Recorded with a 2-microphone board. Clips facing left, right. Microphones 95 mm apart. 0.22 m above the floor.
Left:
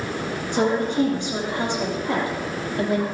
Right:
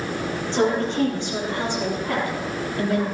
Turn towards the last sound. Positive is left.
turn(degrees=25)  # may be behind; listen again after turning